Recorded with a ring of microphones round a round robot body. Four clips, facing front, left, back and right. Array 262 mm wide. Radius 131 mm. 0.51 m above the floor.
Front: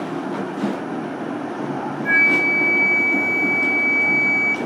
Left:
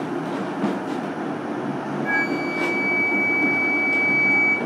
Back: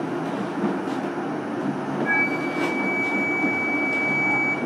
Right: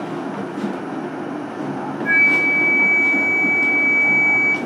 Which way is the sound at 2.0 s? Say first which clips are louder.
Right 5 dB, front 7 dB; 10° right.